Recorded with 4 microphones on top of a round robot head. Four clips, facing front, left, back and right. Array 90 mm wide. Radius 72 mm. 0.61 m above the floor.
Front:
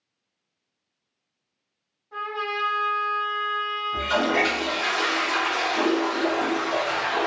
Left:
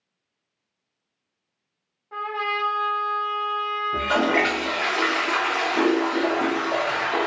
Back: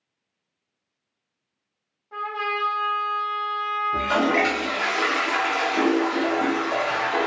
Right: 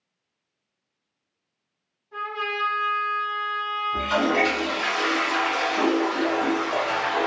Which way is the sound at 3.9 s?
115° left.